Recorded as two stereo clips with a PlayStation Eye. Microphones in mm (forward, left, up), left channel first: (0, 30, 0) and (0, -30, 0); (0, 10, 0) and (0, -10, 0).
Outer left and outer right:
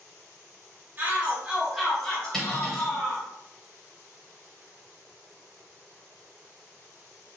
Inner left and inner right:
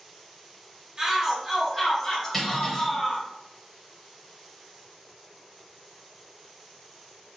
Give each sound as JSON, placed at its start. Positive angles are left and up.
{"t": 1.0, "sound": "a shout", "side_deg": -35, "distance_m": 1.0}
{"t": 2.3, "sound": "cutlery clinking", "side_deg": 10, "distance_m": 1.0}